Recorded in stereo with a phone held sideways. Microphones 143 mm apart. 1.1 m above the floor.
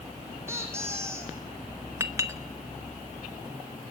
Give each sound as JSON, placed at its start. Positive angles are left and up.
{"t": 0.5, "sound": "a squeak", "side_deg": -20, "distance_m": 5.0}
{"t": 2.0, "sound": "a clink", "side_deg": -20, "distance_m": 1.2}